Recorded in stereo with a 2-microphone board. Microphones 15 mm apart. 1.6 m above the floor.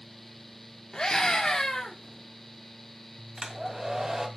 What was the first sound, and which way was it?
A scream, 60° left (ahead or behind).